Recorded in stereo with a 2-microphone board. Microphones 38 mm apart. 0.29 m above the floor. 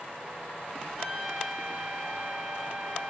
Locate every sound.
1.0 s a trumpet: 15° right (ahead or behind), 1.3 m